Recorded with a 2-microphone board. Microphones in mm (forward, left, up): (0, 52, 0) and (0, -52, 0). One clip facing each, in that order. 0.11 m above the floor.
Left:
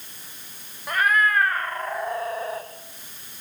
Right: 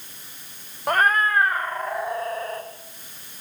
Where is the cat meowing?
50° right (ahead or behind), 1.2 m; by 2.7 s 5° left (ahead or behind), 2.5 m.